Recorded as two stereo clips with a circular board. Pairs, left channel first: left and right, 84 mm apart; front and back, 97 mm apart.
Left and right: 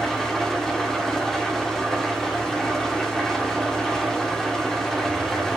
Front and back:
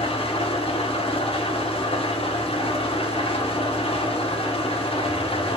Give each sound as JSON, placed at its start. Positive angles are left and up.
{"t": 0.0, "sound": "an engine running", "azimuth_deg": 5, "distance_m": 2.0}